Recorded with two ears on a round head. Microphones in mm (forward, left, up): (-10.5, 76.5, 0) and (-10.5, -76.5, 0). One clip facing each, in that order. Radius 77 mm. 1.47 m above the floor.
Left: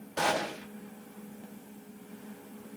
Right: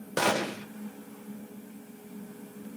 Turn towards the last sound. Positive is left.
turn(degrees=-65)  # may be behind; listen again after turning